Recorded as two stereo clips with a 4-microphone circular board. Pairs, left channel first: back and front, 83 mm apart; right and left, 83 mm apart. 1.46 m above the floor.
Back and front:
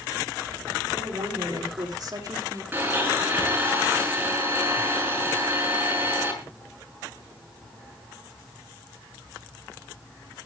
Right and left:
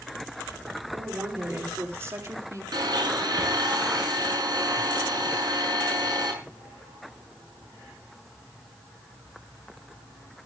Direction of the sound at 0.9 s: 25° left.